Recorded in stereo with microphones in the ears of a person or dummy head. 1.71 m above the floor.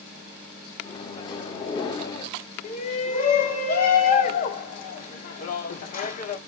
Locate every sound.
0.8 s a microwave: 25° left (ahead or behind), 0.7 m
2.6 s a shout: 45° left (ahead or behind), 1.1 m